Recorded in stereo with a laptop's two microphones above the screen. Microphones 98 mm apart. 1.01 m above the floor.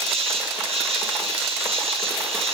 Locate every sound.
0.0 s an insect: 80° right, 4.5 m